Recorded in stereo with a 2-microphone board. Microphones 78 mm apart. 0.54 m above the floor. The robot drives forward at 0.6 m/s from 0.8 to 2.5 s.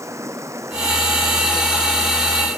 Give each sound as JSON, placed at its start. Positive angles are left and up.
{"t": 0.0, "sound": "running water", "side_deg": -40}